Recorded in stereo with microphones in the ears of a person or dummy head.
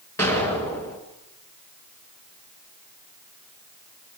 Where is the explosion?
15° left (ahead or behind), 3 m.